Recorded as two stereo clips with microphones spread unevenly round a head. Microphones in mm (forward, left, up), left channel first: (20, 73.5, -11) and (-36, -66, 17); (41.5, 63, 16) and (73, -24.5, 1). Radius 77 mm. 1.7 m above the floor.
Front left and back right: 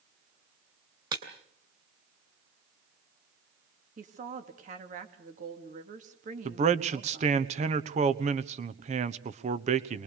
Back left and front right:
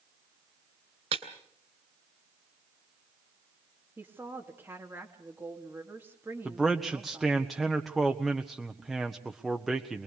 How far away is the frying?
I don't hear frying.